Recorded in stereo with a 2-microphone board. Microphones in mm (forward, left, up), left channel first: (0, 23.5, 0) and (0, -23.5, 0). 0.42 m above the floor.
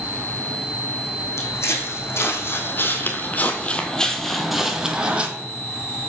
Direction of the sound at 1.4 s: 70° left (ahead or behind).